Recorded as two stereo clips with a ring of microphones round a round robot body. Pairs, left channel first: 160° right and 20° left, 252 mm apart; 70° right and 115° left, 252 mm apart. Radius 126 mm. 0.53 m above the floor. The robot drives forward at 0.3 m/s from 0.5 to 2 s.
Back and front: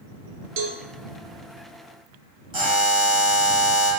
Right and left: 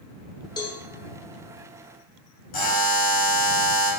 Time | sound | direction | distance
0.6 | a cowbell | 5° left | 0.7 m
2.5 | a buzzer | 40° right | 1.5 m